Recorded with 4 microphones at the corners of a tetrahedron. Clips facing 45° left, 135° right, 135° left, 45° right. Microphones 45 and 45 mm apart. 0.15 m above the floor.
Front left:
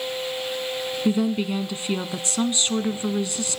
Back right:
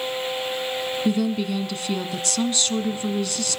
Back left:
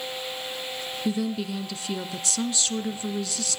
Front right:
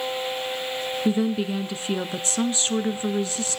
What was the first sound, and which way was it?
A woman speaking, 10° right.